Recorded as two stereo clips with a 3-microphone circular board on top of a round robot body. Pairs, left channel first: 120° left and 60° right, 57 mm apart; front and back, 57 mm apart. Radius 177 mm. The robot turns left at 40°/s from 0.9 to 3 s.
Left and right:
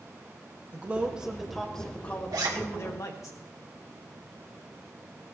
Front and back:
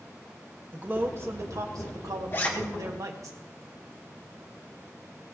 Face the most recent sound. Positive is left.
turn(degrees=-80)